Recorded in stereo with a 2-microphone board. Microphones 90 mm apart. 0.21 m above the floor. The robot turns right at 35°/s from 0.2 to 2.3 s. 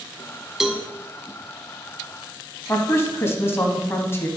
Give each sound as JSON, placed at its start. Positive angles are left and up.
{"t": 0.6, "sound": "a cowbell", "side_deg": -5, "distance_m": 0.6}
{"t": 2.7, "sound": "a woman speaking", "side_deg": 30, "distance_m": 1.2}